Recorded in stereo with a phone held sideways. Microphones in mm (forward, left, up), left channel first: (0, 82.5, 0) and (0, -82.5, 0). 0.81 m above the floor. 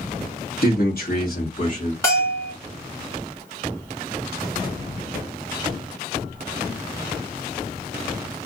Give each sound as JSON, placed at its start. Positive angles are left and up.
{"t": 0.6, "sound": "a man speaking", "side_deg": 65, "distance_m": 1.4}
{"t": 2.0, "sound": "a bell", "side_deg": 15, "distance_m": 1.3}